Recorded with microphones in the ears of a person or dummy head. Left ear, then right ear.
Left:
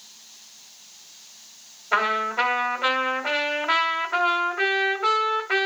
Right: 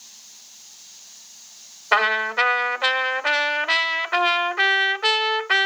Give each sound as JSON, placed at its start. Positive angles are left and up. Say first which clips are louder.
{"t": 1.9, "sound": "a trumpet", "louder": "right 3 dB", "side_deg": -50, "distance_m": 1.5}